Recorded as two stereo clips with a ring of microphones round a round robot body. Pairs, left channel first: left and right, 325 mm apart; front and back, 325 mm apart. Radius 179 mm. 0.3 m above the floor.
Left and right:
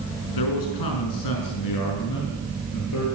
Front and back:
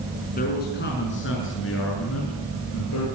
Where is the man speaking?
65° left, 4.5 m; by 3.1 s 45° left, 7 m.